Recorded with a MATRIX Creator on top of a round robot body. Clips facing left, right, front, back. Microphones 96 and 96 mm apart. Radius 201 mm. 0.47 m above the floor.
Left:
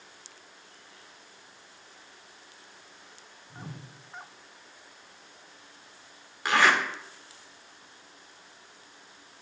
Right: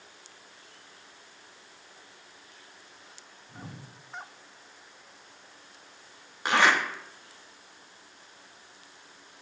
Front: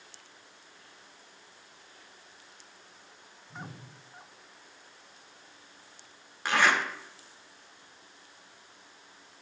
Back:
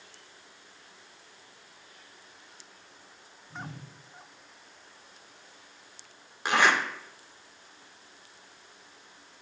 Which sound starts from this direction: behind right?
A zipper, at 6.5 s.